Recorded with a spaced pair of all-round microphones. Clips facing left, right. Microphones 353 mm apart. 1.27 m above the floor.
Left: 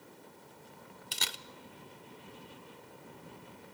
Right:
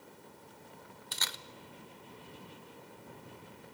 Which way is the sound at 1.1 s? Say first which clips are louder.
Left 2 dB; 40° left (ahead or behind).